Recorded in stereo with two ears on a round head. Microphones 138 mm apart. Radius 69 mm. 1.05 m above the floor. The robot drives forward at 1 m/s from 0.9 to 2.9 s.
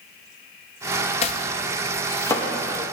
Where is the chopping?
45° left (ahead or behind), 0.6 m; by 2.5 s 15° left (ahead or behind), 1.5 m.